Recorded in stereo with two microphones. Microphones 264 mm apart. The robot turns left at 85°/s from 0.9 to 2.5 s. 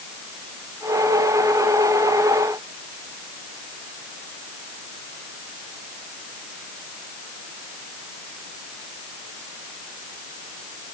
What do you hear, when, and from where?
Only background noise.